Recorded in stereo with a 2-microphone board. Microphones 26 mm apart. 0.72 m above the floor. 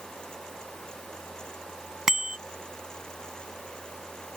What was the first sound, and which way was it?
A bicycle bell, 20° right (ahead or behind).